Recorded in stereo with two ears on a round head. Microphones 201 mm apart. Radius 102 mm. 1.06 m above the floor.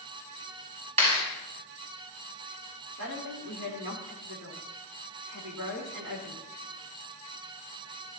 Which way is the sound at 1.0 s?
30° right (ahead or behind).